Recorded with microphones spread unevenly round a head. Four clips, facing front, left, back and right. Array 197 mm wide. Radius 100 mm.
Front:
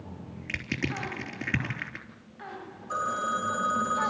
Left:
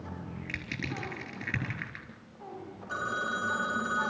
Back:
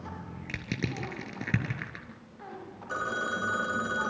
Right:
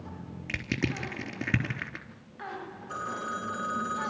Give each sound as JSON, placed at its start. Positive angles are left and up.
{"t": 0.5, "sound": "crushing", "azimuth_deg": -110, "distance_m": 4.0}
{"t": 2.9, "sound": "a phone ringing", "azimuth_deg": 180, "distance_m": 2.5}